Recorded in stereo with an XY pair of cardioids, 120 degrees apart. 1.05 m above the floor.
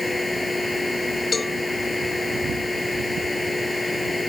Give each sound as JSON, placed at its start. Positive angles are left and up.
{"t": 0.0, "sound": "a machine running", "azimuth_deg": 10}
{"t": 1.3, "sound": "a cowbell", "azimuth_deg": 25}